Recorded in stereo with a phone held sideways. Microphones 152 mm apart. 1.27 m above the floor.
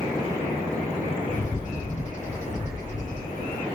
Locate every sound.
1.3 s a bird: 55° left (ahead or behind), 2 m